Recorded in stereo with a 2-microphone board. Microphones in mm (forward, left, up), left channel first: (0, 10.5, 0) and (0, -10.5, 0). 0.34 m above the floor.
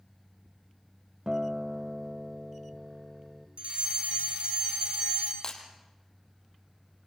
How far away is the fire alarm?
About 5.5 m.